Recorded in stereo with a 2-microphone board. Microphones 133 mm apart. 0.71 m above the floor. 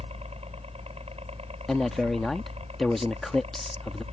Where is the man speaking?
Centre (ahead or behind).